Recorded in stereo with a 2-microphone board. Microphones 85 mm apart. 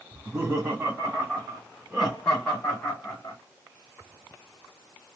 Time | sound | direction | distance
0.1 | laughter | 35° right (ahead or behind) | 1.9 m